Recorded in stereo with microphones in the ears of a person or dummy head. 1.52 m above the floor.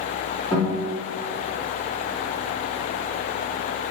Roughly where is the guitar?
Centre.